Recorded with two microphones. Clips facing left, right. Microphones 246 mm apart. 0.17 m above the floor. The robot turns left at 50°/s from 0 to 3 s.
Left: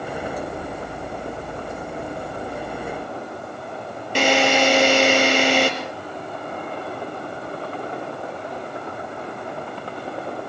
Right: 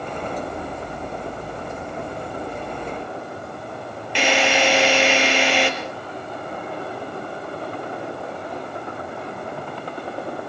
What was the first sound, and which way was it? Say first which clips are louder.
A drill: left 2 dB; 45° left (ahead or behind).